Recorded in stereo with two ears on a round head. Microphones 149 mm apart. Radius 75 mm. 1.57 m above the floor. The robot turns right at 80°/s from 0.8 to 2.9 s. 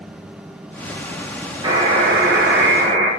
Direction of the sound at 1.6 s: 150° right.